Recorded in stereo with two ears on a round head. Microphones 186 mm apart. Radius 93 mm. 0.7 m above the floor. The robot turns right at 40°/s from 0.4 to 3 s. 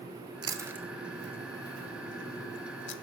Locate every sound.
0.4 s chewing: 20° right (ahead or behind), 0.8 m; by 3.0 s 60° left (ahead or behind), 0.8 m